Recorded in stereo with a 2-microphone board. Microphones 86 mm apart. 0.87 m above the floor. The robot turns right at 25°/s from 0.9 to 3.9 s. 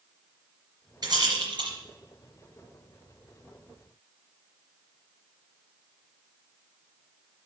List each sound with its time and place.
1.0 s a rattle: 50° right (ahead or behind), 3.5 m; by 1.7 s 65° right (ahead or behind), 3.5 m